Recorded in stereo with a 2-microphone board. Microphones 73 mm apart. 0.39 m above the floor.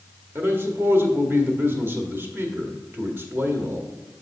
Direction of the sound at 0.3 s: 30° right (ahead or behind).